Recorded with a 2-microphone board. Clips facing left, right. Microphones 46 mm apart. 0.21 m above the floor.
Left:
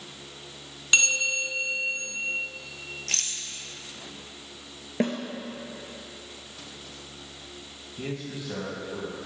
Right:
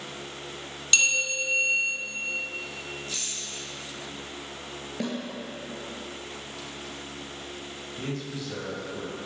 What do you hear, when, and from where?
0.9 s a bell: 20° left (ahead or behind), 2.5 m
3.1 s a rattle: 85° left, 0.8 m
5.0 s a snare drum: 35° left (ahead or behind), 1.3 m
8.0 s a man speaking: 15° left (ahead or behind), 1.7 m